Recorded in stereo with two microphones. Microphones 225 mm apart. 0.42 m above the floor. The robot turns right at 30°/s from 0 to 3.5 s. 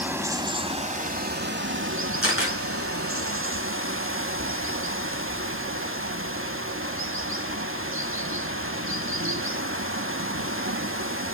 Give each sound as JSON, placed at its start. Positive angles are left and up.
{"t": 0.0, "sound": "running water", "azimuth_deg": -175, "distance_m": 1.0}
{"t": 2.2, "sound": "a camera shutter", "side_deg": 70, "distance_m": 4.5}